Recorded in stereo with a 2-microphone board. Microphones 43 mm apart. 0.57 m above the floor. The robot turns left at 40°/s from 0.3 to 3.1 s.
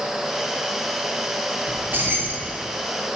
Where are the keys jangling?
105° right, 0.8 m; by 2.5 s 140° right, 0.8 m.